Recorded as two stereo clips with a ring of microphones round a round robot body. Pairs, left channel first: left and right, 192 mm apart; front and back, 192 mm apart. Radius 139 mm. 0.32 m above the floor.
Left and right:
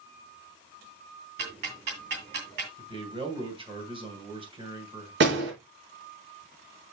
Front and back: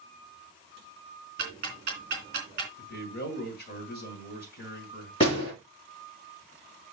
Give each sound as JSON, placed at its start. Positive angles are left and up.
{"t": 1.4, "sound": "ticking", "azimuth_deg": -130, "distance_m": 2.0}
{"t": 2.8, "sound": "a man speaking", "azimuth_deg": -30, "distance_m": 2.5}
{"t": 5.2, "sound": "a door slam", "azimuth_deg": -70, "distance_m": 5.5}